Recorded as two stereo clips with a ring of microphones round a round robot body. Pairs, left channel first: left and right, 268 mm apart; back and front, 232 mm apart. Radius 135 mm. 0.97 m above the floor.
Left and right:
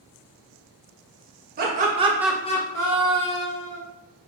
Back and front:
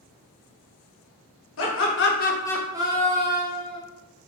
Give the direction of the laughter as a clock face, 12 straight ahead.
5 o'clock.